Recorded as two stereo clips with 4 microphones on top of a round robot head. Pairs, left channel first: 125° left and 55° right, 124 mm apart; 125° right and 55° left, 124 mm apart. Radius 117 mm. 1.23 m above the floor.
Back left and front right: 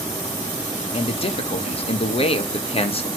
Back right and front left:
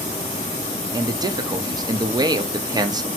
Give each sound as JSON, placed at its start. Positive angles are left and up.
{"t": 0.9, "sound": "a man speaking", "azimuth_deg": 105, "distance_m": 0.9}